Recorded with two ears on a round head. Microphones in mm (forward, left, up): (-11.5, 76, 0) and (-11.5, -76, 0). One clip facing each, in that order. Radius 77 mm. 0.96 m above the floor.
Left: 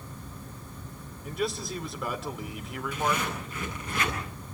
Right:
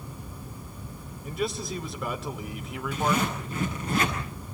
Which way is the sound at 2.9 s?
25° right (ahead or behind).